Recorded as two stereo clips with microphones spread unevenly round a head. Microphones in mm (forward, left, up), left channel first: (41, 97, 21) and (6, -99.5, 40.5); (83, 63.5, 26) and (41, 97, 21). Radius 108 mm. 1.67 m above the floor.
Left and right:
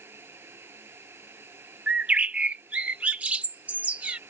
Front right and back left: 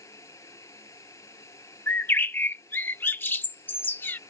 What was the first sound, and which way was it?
A fan, 20° right.